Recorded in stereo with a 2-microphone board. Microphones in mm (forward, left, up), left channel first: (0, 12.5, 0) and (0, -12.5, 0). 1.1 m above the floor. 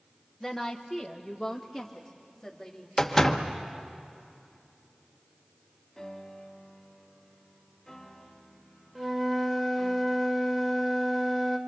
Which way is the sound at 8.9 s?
10° right (ahead or behind).